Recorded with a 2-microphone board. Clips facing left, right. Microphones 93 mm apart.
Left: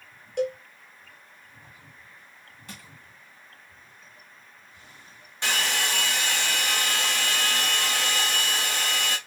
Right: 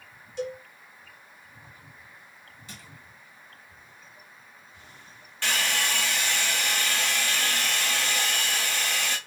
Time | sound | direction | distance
0.4 | a cowbell | 75° left (ahead or behind) | 0.7 m
2.7 | crushing | 55° left (ahead or behind) | 1.5 m
5.4 | a hair dryer | 20° left (ahead or behind) | 0.8 m